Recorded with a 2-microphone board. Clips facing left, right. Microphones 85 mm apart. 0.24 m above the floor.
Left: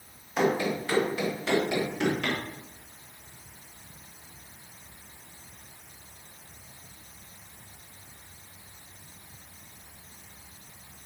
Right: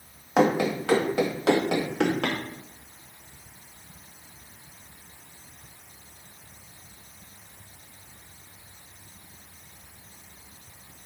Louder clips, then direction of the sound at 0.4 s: Right 4 dB; 75° right (ahead or behind).